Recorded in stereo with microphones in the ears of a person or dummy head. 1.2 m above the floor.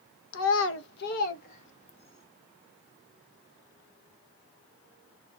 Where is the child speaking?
80° left, 0.8 m; by 2.2 s 30° left (ahead or behind), 1.4 m.